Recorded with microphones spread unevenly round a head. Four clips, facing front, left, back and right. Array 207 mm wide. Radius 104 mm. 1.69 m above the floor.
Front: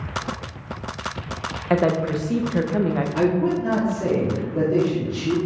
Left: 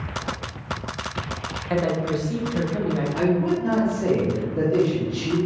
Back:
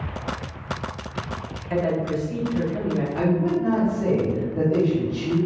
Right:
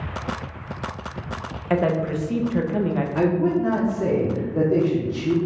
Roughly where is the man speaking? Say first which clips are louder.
Right 2 dB, front 2 dB; ahead right.